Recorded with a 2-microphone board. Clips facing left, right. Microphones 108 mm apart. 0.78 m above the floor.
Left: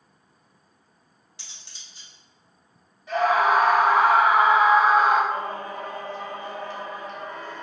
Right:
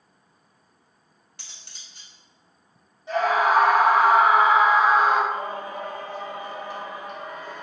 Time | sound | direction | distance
1.4 | cutlery clinking | 55° right (ahead or behind) | 0.8 m
3.1 | a scream | 25° right (ahead or behind) | 1.5 m
5.3 | singing | 15° right (ahead or behind) | 0.7 m